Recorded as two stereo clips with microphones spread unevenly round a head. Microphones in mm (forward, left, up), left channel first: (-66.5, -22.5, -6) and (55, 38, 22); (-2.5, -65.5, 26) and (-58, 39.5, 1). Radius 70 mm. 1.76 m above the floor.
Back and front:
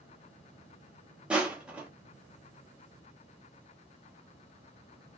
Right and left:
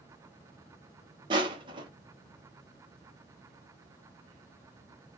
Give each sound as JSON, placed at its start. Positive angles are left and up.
{"t": 1.3, "sound": "crushing", "azimuth_deg": 80, "distance_m": 0.8}